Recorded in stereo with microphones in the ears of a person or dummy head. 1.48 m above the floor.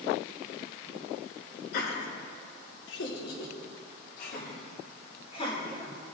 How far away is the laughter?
About 4.5 m.